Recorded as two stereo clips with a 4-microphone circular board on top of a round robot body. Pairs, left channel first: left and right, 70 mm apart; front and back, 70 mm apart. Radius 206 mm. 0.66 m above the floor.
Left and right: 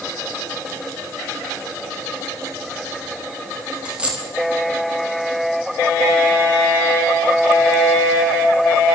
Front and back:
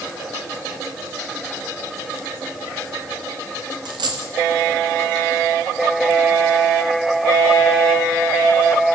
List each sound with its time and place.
3.9 s a dropped coin: 165° right, 0.8 m